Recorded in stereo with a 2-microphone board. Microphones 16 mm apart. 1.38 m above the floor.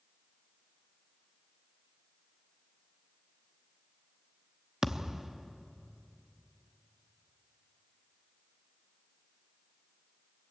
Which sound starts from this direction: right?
A thud, at 4.8 s.